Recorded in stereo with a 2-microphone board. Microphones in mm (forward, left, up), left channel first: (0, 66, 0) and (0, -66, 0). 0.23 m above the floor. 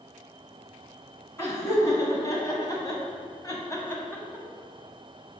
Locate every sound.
1.4 s laughter: 20° left (ahead or behind), 2.0 m